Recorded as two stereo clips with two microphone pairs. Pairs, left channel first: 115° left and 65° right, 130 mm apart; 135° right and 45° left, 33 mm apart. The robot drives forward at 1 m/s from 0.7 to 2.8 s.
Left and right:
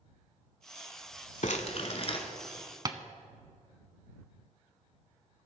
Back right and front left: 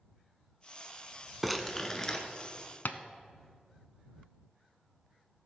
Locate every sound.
1.4 s crumpling: 135° left, 0.8 m; by 2.2 s 160° left, 1.4 m
2.9 s tapping: 130° right, 0.6 m